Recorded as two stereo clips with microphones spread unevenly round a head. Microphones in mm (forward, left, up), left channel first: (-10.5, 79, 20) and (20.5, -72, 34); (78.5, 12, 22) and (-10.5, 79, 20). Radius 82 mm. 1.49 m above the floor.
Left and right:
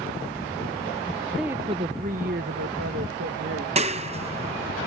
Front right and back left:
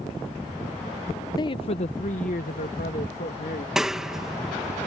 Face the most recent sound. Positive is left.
turn(degrees=-130)